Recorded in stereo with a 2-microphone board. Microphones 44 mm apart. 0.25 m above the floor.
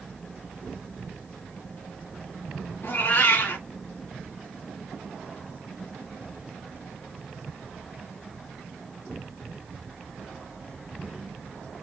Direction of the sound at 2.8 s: 65° left (ahead or behind).